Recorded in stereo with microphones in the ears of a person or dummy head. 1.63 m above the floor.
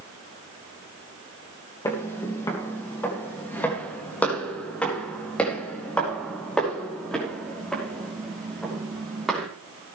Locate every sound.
1.9 s footsteps: 15° left (ahead or behind), 3 m; by 9.5 s centre (ahead or behind), 6.5 m